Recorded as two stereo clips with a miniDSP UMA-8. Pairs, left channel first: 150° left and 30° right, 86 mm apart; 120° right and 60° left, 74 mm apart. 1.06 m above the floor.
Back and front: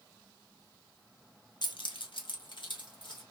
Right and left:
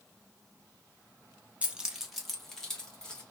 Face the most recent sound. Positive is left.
turn(degrees=160)